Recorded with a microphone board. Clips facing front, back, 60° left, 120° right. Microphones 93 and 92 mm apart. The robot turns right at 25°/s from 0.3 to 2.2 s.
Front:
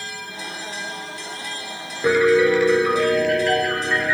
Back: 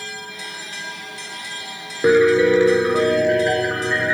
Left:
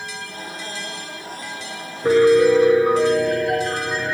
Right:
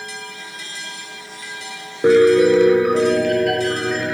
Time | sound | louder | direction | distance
2.0 | a piano | back 2 dB, right 2 dB | 120° right | 4 m